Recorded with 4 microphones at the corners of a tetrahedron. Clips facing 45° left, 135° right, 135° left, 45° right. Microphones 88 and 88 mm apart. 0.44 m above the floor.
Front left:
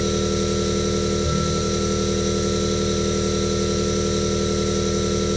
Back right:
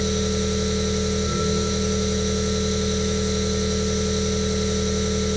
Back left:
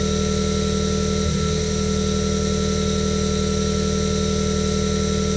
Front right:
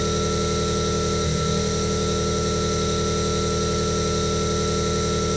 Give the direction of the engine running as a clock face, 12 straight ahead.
11 o'clock.